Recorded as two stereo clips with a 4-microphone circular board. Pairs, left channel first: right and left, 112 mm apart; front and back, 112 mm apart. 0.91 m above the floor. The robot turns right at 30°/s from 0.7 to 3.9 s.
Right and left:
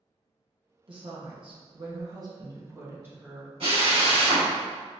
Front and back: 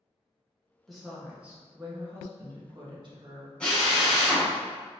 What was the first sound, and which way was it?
A woman speaking, 90° left.